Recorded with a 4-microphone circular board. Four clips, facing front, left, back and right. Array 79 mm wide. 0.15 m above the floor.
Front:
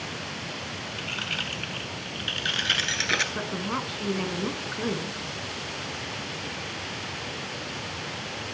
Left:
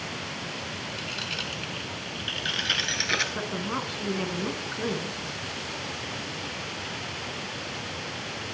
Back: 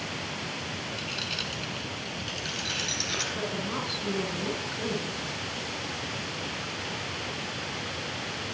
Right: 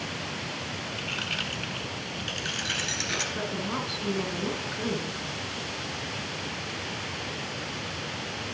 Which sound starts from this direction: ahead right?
Keys jangling, at 1.0 s.